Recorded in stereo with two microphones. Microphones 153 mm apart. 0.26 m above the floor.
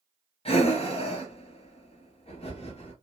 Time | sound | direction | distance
0.5 | breathing | 40° left (ahead or behind) | 0.7 m